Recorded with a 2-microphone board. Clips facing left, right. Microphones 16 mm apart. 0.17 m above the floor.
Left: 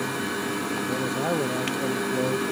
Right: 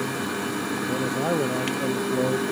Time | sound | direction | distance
0.9 | a man speaking | 5° right (ahead or behind) | ?